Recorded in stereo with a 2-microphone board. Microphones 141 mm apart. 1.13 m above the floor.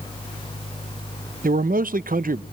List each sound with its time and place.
1.4 s a man speaking: 85° right, 0.5 m